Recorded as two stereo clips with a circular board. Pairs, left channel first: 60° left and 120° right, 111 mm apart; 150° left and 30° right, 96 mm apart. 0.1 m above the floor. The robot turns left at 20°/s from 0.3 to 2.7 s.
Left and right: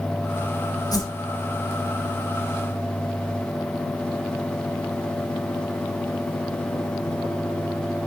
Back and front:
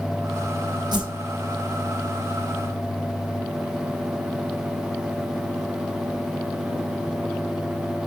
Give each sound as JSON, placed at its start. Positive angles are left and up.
{"t": 0.9, "sound": "a whoosh", "azimuth_deg": 5, "distance_m": 2.5}